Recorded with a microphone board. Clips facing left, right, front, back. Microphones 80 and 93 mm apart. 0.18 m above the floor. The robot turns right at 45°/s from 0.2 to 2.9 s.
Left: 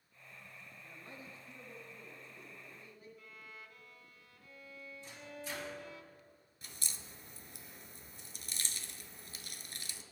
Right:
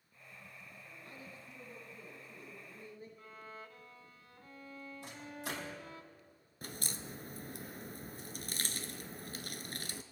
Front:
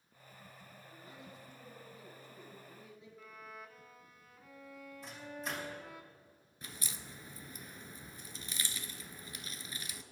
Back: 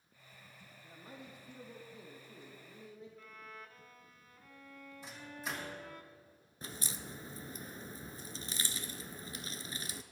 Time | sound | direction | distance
0.8 | a man speaking | 130° left | 3.5 m
3.2 | a violin | 80° right | 0.9 m
5.0 | a microwave | 95° right | 5 m
6.6 | a crack | 125° right | 0.8 m